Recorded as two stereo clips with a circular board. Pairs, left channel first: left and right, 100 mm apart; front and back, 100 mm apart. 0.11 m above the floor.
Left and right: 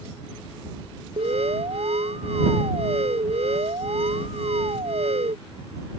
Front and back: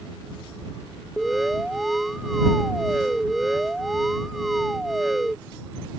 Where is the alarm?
90° right.